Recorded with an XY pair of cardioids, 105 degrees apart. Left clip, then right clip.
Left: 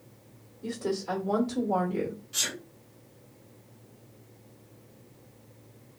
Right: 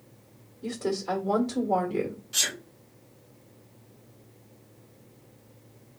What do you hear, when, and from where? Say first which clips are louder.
0.6 s a woman speaking: right 2 dB; 20° right, 1.3 m
2.3 s a sneeze: right 4 dB; 40° right, 1.3 m